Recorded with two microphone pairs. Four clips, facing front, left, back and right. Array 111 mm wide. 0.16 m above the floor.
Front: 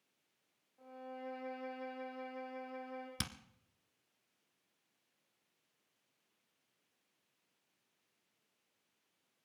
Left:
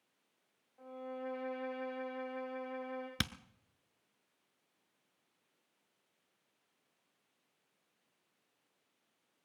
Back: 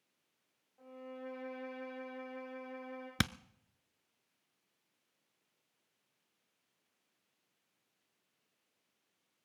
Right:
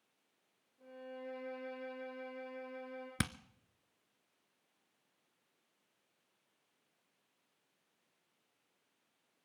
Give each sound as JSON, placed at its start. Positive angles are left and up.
{"t": 0.8, "sound": "a violin", "azimuth_deg": 105, "distance_m": 8.0}
{"t": 3.2, "sound": "hammering", "azimuth_deg": -170, "distance_m": 0.5}